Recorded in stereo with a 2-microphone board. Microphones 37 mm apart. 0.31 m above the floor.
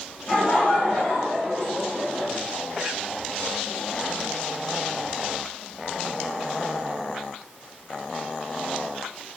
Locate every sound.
0.3 s laughter: 30° left (ahead or behind), 1.7 m; by 2.3 s 35° left (ahead or behind), 1.8 m